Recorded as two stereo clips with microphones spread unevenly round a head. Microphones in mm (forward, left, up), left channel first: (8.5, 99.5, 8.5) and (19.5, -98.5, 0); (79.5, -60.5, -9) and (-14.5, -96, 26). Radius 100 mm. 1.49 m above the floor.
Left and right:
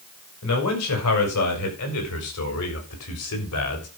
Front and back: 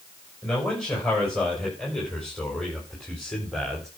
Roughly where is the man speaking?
Left.